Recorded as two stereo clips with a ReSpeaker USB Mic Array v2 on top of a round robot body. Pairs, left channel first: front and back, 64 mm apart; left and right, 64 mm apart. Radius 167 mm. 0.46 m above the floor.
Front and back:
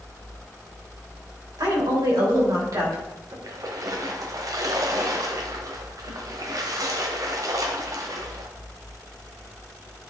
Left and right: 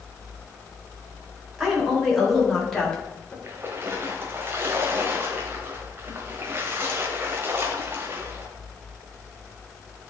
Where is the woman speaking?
175° right, 3 m; by 3.3 s 155° left, 2.5 m.